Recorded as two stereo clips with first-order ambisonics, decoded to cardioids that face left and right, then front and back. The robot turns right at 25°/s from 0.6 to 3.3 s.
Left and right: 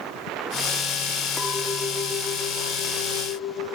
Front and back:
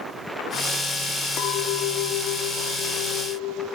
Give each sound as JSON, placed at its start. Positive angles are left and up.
{"t": 1.4, "sound": "a clink", "azimuth_deg": 10, "distance_m": 0.9}